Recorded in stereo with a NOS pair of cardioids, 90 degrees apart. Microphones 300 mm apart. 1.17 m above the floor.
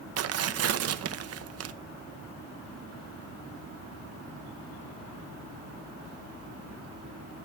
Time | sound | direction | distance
0.2 | tearing paper | 55° right | 0.8 m